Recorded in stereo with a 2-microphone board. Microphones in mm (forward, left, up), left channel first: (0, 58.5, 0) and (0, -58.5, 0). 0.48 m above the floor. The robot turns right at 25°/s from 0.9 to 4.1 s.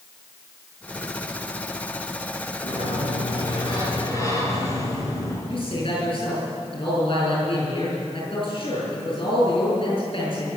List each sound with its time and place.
2.6 s a sliding door: 115° left, 4.5 m; by 5.4 s 150° left, 4.5 m
5.5 s a man speaking: 50° left (ahead or behind), 7.5 m